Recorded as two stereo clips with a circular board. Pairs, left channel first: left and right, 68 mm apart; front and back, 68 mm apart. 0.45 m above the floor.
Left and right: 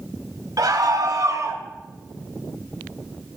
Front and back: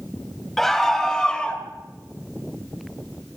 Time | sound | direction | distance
0.6 | a scream | 85° right | 3 m